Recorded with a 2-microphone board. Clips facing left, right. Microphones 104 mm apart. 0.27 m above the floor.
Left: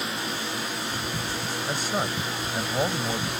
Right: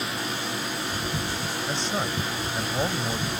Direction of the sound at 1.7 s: 10° left (ahead or behind).